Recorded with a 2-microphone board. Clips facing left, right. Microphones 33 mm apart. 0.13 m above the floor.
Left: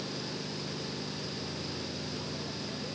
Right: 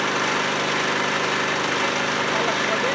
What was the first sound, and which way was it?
An engine running, 80° right.